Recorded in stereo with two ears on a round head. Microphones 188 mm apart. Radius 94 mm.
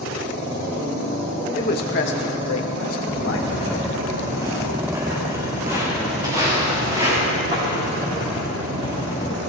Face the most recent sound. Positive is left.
turn(degrees=-20)  # may be behind; listen again after turning